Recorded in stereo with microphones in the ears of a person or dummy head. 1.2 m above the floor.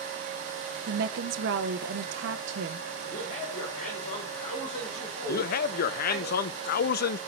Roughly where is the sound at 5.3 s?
Left.